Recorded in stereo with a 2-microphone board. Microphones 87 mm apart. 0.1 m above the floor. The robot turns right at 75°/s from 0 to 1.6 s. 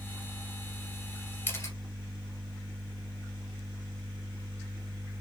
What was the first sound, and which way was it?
A camera shutter, 25° left (ahead or behind).